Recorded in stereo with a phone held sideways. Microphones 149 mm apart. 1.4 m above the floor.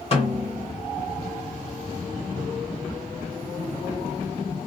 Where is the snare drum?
40° left (ahead or behind), 1.7 m.